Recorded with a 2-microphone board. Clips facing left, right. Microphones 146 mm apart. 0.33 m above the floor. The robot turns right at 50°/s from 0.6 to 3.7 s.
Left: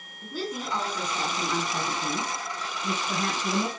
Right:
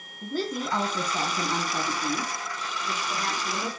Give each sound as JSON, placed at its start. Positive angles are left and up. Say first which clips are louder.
{"t": 0.2, "sound": "a woman speaking", "louder": "right 3 dB", "azimuth_deg": -65, "distance_m": 2.5}